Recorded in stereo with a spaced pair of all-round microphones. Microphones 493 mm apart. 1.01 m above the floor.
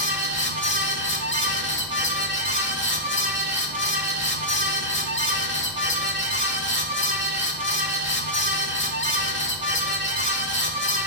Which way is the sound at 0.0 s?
25° left (ahead or behind).